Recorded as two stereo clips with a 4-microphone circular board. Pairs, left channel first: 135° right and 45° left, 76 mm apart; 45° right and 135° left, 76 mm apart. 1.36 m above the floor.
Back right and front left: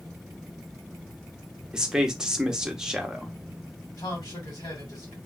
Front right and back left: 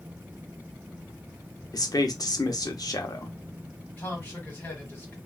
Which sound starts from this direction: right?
A man speaking, at 4.0 s.